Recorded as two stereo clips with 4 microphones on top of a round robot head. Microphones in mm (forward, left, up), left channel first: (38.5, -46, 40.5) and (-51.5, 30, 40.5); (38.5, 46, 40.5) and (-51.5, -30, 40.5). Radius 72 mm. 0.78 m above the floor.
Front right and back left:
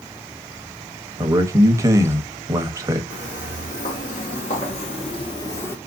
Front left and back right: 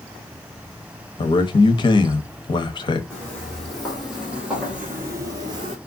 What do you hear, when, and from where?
1.2 s a man speaking: 80° left, 0.9 m
3.1 s footsteps: 45° right, 2.5 m; by 5.8 s 110° right, 0.9 m